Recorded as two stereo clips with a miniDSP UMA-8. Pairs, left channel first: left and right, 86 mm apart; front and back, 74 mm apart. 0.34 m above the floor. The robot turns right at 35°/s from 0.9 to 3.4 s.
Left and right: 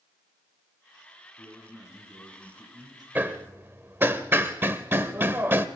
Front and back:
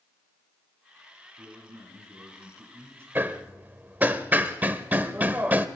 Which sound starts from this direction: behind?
A man speaking, at 1.4 s.